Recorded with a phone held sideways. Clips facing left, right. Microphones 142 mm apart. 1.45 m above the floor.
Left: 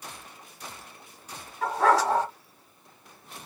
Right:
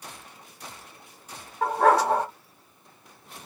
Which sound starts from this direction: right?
A dog barking, at 1.6 s.